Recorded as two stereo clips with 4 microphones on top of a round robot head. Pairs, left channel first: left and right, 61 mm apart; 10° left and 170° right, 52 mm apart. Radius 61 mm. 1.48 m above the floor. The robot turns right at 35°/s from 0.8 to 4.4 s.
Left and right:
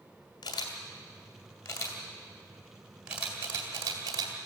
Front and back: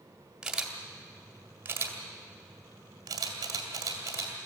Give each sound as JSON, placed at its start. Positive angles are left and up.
{"t": 0.4, "sound": "a camera shutter", "azimuth_deg": 110, "distance_m": 2.5}